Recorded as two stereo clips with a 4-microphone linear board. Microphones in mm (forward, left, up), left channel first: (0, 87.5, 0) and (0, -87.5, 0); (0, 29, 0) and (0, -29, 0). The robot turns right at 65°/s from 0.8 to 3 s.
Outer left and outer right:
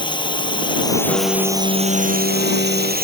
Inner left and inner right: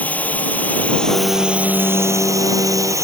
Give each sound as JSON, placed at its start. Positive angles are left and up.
{"t": 0.0, "sound": "a drone", "azimuth_deg": 150}
{"t": 1.1, "sound": "a piano", "azimuth_deg": 10}